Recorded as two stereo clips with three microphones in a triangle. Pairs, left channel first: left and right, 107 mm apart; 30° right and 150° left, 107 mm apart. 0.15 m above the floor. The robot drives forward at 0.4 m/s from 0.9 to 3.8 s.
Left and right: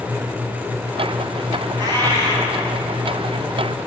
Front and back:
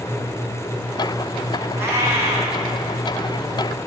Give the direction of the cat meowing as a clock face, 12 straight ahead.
5 o'clock.